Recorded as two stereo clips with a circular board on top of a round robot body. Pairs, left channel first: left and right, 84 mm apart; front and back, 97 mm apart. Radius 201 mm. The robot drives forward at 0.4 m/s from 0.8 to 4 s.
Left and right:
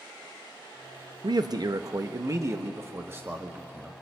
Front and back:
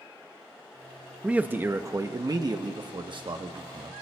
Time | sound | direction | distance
1.2 | a man speaking | 105° right | 0.8 m